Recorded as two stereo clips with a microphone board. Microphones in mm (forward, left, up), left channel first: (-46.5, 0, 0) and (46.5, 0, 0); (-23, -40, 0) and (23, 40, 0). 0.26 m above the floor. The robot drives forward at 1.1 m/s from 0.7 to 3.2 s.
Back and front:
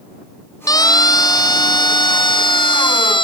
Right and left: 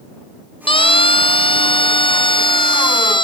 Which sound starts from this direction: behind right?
A siren, at 0.7 s.